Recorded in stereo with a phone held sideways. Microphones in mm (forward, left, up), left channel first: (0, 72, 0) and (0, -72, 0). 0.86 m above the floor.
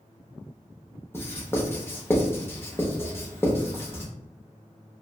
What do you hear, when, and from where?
1.1 s writing: 20° left (ahead or behind), 0.6 m